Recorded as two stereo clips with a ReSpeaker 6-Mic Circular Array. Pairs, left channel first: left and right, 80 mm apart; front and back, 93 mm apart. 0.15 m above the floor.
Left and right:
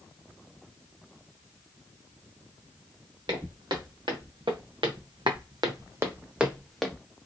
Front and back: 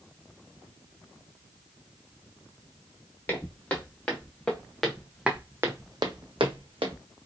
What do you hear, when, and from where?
3.3 s footsteps: 70° right, 1.6 m; by 7.0 s 175° left, 0.8 m